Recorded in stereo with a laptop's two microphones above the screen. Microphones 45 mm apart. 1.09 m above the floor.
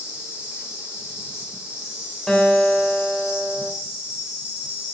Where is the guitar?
5° left (ahead or behind), 2.5 m.